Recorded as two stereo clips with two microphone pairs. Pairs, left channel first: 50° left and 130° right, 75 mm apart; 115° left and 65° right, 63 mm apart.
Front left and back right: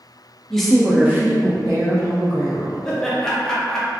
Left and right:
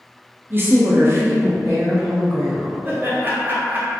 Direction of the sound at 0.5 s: 30° right.